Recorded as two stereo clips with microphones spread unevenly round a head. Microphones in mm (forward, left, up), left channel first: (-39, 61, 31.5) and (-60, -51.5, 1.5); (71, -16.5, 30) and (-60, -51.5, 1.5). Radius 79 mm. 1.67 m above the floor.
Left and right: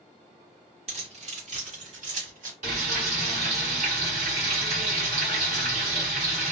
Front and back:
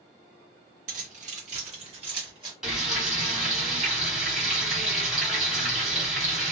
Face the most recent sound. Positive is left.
turn(degrees=-70)